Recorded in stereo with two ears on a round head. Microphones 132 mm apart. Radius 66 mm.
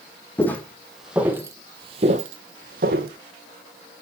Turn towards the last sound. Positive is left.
turn(degrees=-70)  # may be behind; listen again after turning